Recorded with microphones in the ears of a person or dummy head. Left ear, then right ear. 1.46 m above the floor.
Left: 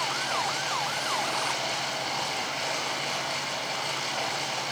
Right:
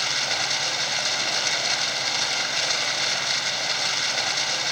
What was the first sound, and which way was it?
Running water, 60° right (ahead or behind).